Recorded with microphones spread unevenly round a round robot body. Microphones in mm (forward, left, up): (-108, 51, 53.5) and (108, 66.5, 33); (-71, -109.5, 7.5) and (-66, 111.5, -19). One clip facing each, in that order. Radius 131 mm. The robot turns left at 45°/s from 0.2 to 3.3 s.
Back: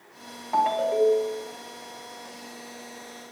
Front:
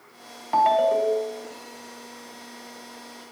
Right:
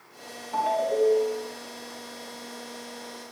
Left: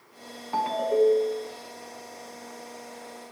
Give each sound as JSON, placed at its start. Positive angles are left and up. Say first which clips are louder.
{"t": 0.5, "sound": "a ringtone", "louder": "front 2 dB, left 2 dB", "azimuth_deg": 45, "distance_m": 2.5}